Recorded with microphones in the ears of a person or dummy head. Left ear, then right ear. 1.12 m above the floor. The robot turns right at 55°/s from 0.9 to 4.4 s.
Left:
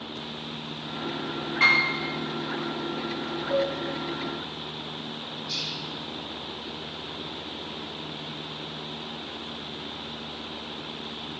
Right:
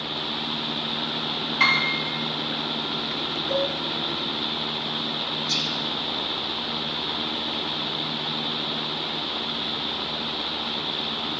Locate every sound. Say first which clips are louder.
1.6 s a piano: even; 30° right (ahead or behind), 3.5 m; by 1.9 s 20° right (ahead or behind), 3.5 m
3.5 s a cowbell: even; 20° right (ahead or behind), 1.4 m; by 3.7 s 25° right (ahead or behind), 1.4 m
5.5 s whispering: right 4 dB; 35° right (ahead or behind), 1.8 m